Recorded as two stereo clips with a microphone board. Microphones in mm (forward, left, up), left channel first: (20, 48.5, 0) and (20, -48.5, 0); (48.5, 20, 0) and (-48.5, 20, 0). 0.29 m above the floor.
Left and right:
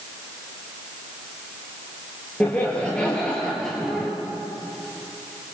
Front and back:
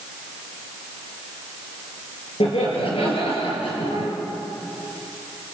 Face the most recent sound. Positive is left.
turn(degrees=0)